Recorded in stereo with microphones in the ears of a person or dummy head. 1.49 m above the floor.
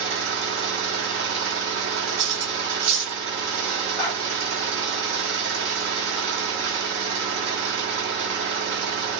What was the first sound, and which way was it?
An engine running, 50° right (ahead or behind).